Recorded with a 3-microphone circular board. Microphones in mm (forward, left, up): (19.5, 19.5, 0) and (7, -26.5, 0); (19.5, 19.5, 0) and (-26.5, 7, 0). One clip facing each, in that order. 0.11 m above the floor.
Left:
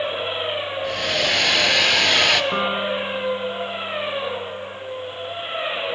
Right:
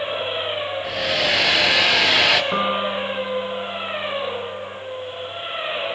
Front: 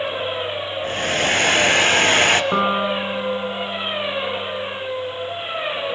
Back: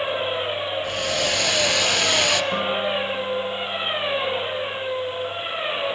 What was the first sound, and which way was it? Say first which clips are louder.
A hair dryer: right 1 dB, front 7 dB; 20° right.